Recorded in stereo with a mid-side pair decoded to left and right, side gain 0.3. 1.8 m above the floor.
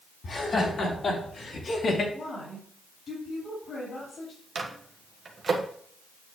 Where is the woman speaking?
70° left, 4.5 m.